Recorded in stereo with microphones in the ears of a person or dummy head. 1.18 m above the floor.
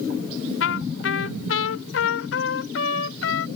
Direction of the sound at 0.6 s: 75° left (ahead or behind).